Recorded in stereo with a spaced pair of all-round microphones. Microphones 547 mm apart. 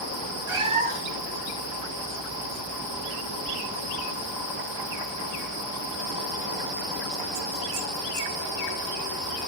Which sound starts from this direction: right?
A cat meowing, at 0.5 s.